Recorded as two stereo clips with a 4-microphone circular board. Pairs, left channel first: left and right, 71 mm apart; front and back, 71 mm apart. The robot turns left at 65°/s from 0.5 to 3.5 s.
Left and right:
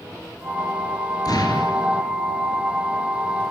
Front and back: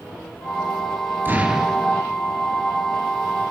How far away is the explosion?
About 4 m.